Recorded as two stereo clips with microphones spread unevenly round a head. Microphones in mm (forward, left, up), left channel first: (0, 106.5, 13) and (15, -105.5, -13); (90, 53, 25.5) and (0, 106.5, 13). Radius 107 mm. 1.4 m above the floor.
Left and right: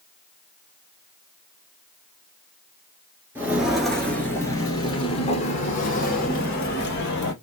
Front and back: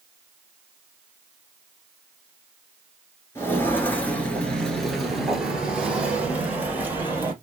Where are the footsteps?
Straight ahead, 1.6 m; by 7.3 s 75° left, 2.5 m.